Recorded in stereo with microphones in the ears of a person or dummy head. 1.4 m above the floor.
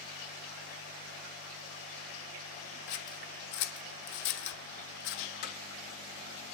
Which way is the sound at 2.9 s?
65° left (ahead or behind).